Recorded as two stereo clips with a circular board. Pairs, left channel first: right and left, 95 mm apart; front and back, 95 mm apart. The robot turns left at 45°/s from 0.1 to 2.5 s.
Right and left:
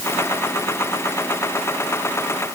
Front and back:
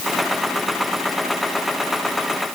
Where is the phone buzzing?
No phone buzzing in this recording.